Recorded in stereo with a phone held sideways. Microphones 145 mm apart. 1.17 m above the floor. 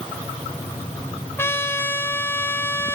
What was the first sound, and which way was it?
A trumpet, 15° left (ahead or behind).